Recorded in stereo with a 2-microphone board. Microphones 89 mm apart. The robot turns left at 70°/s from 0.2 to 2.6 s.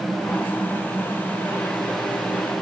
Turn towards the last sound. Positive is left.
No sound to turn to.